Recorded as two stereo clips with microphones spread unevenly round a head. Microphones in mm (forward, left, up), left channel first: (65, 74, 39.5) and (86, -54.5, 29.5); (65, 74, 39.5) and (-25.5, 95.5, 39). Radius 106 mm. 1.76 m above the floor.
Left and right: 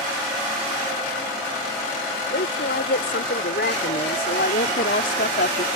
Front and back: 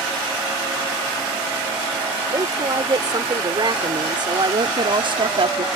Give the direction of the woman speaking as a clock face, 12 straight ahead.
8 o'clock.